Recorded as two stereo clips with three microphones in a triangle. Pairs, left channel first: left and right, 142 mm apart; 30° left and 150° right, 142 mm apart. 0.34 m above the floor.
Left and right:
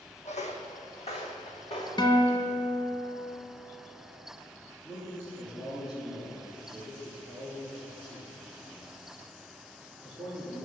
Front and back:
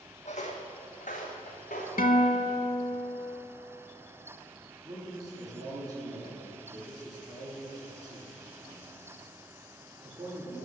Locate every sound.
0.2 s footsteps: 60° left, 1.1 m; by 1.9 s 45° left, 2 m
2.0 s a guitar: 35° left, 0.8 m
4.8 s a man speaking: 150° left, 3 m